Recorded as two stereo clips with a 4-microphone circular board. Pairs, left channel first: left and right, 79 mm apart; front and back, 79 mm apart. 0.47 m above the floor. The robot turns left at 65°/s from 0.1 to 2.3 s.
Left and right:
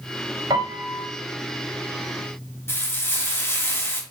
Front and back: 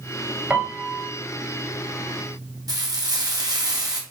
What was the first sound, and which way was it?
A piano, 110° right.